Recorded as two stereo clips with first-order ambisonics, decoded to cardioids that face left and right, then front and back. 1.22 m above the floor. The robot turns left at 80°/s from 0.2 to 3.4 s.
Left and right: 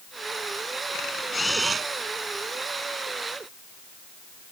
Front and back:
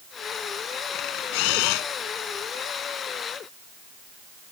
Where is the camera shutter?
45° left; by 1.9 s 25° right.